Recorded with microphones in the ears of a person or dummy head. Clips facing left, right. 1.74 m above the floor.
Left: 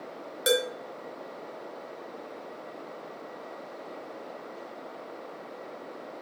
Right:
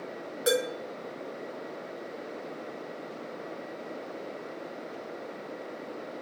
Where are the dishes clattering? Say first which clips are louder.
Left 1 dB; 25° left (ahead or behind), 1.1 m.